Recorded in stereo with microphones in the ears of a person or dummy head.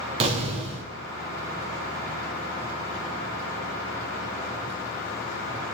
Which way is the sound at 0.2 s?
35° right (ahead or behind).